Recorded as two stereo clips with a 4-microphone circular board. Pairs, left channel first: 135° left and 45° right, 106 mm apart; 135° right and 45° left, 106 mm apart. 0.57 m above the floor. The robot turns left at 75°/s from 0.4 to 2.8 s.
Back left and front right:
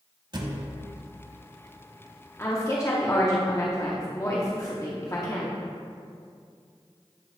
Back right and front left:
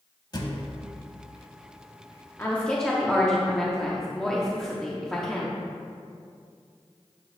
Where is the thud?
90° right, 0.8 m; by 0.7 s 115° right, 0.8 m.